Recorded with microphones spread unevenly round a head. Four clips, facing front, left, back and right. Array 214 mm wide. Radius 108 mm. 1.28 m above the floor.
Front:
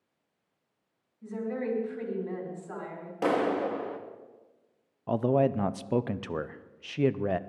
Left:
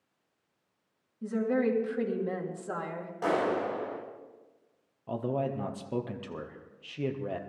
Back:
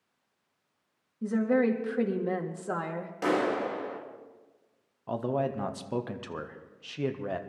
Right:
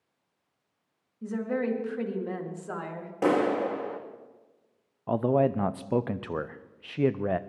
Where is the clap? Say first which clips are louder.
Right 4 dB, front 1 dB; 80° right, 1.8 m.